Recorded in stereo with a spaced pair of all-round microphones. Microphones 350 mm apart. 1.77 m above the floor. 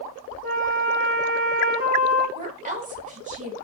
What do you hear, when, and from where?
0.4 s a flute: 25° right (ahead or behind), 1.0 m
2.4 s a woman speaking: 20° right (ahead or behind), 1.1 m